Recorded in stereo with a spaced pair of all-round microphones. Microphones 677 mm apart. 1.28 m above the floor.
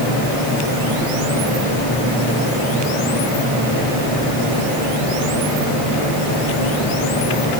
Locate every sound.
Only background noise.